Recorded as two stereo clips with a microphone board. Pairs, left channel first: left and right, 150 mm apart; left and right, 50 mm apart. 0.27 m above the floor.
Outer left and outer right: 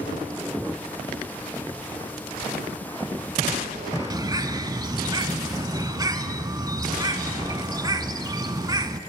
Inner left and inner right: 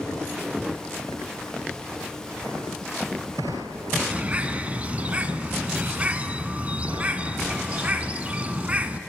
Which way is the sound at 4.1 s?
25° right (ahead or behind).